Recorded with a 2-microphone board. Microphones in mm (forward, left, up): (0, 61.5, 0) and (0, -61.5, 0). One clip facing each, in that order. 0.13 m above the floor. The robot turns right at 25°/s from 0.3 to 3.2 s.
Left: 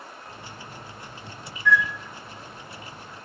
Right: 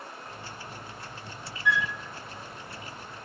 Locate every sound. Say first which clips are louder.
1.6 s a flute: left 5 dB; 15° right (ahead or behind), 0.6 m; by 1.9 s 20° right (ahead or behind), 0.6 m